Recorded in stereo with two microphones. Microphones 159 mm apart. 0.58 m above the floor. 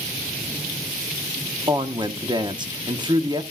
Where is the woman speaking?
30° right (ahead or behind), 0.8 m.